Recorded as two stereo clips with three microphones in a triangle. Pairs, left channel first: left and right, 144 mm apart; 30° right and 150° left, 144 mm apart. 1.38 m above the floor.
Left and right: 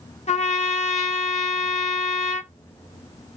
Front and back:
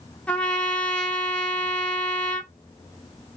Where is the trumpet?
50° left, 0.6 m.